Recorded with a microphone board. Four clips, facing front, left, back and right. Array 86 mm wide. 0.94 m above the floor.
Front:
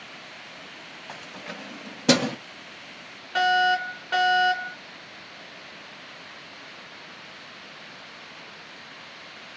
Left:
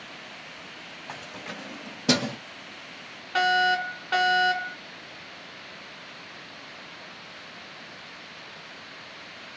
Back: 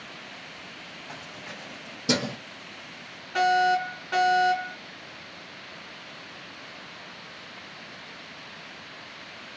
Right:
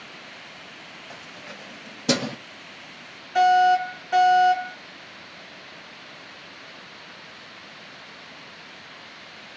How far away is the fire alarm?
About 2 m.